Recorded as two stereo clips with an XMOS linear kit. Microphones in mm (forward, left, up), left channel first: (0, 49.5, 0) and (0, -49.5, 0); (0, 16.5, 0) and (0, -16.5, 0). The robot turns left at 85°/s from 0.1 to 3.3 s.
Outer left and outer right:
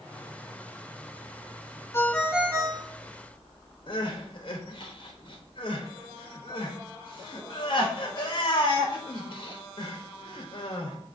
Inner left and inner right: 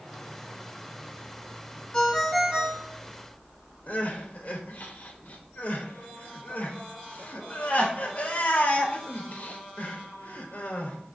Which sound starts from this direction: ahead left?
A ringtone, at 1.9 s.